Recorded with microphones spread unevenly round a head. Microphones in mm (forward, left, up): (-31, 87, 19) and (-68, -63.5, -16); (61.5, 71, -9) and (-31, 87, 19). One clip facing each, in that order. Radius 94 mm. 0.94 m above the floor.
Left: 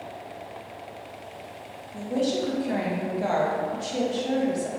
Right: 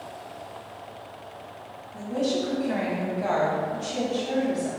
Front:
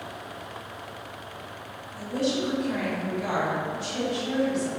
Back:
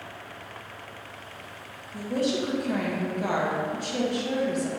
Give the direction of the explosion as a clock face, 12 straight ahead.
I don't hear an explosion.